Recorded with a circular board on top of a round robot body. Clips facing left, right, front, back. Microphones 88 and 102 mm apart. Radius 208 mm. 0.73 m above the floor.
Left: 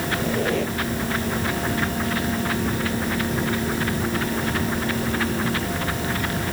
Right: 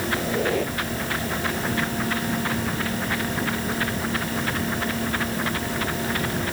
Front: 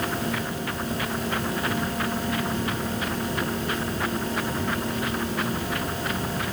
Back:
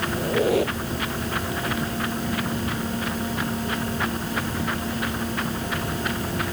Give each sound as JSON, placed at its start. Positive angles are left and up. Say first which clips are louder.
{"t": 0.1, "sound": "a squeak", "louder": "left 1 dB, back 8 dB", "azimuth_deg": -175}